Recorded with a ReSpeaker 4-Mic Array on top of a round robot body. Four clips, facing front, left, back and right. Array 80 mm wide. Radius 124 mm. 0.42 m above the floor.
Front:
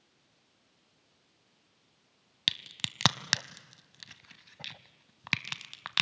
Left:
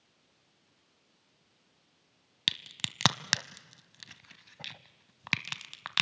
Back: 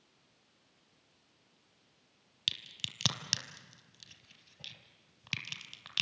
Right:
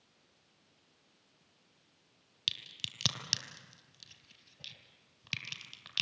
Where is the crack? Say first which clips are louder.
Left 7 dB, front 6 dB; 50° left, 0.7 m.